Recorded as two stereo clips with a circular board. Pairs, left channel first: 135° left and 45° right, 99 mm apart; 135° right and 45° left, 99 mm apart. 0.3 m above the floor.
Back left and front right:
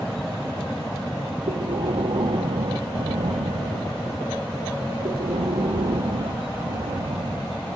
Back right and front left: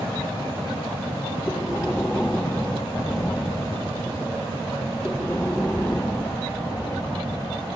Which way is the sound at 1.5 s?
55° right.